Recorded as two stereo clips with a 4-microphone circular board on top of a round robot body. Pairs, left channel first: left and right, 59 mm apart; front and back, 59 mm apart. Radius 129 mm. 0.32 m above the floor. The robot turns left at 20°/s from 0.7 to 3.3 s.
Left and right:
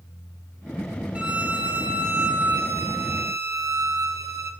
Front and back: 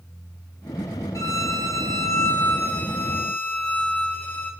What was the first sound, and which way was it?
A violin, 20° right.